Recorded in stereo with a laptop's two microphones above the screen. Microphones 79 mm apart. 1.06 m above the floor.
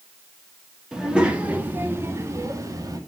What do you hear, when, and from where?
0.9 s a child speaking: 10° right (ahead or behind), 1.7 m; by 3.0 s 50° right (ahead or behind), 1.7 m